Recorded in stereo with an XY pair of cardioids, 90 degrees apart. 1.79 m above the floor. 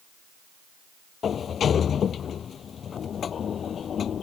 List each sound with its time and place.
1.2 s a sliding door: 60° left